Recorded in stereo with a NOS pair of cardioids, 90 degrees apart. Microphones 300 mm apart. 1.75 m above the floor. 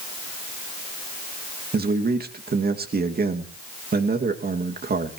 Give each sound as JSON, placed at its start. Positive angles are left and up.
{"t": 1.7, "sound": "a man speaking", "azimuth_deg": -30, "distance_m": 2.5}